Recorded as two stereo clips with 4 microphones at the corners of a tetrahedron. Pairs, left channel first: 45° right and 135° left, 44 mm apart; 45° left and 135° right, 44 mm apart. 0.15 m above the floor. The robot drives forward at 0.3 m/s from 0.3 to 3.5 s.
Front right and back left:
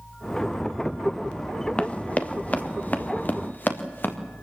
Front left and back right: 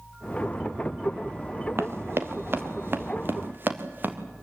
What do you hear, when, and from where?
1.8 s running footsteps: 110° right, 1.8 m; by 4.2 s 90° right, 3.5 m